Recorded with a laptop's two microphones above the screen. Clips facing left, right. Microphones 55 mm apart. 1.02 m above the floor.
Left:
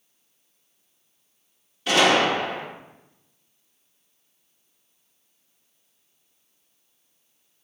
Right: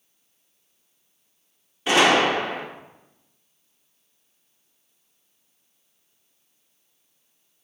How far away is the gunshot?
About 1.0 m.